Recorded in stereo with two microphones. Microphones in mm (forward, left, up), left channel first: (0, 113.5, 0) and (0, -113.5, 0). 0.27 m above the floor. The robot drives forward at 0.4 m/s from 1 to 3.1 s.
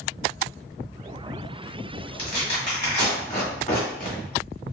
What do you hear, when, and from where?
2.2 s tearing paper: 35° left (ahead or behind), 1.5 m; by 4.2 s 30° left (ahead or behind), 1.8 m